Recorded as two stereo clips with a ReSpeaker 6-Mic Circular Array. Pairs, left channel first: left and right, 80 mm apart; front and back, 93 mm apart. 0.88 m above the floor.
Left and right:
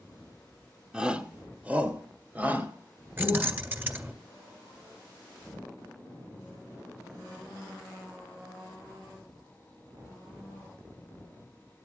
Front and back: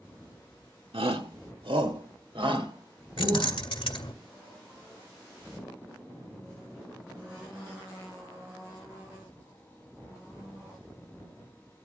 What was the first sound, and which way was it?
A shout, 170° right.